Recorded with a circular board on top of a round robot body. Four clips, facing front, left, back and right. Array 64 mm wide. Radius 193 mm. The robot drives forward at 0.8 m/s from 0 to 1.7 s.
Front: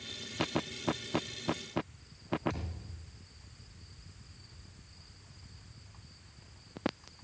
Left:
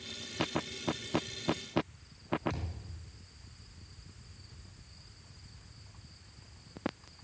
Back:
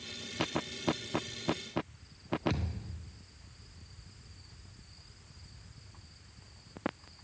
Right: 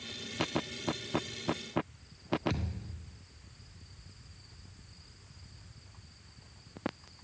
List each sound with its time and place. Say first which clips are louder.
2.5 s a thud: right 4 dB, back 5 dB; 150° right, 3 m